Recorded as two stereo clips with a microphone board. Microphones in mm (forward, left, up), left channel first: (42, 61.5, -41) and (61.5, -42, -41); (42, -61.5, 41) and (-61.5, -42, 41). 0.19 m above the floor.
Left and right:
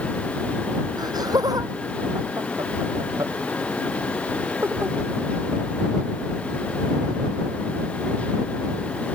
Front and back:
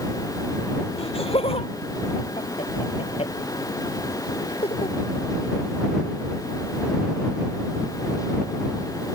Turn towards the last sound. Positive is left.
turn(degrees=-10)